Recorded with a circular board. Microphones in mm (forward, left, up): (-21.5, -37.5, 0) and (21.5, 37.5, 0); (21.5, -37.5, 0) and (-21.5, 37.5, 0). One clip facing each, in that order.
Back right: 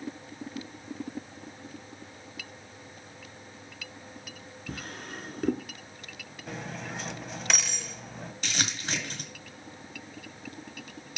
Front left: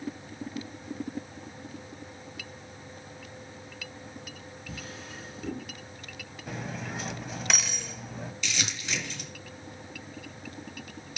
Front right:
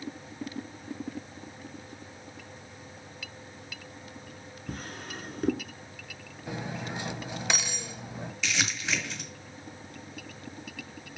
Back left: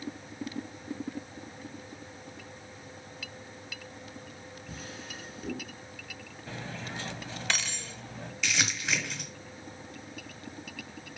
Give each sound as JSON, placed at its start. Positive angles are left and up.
{"t": 4.7, "sound": "a drawer", "azimuth_deg": -90, "distance_m": 0.8}
{"t": 6.5, "sound": "cutlery clinking", "azimuth_deg": -25, "distance_m": 0.5}
{"t": 8.4, "sound": "crumpling", "azimuth_deg": -155, "distance_m": 2.5}